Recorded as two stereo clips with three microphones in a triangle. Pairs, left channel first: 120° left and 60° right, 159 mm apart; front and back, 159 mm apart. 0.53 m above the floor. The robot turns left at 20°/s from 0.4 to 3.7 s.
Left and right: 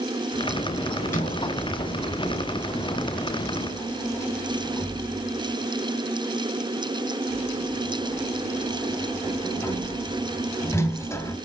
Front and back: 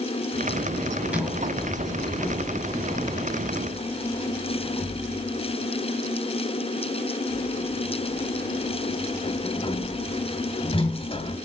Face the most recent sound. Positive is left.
turn(degrees=50)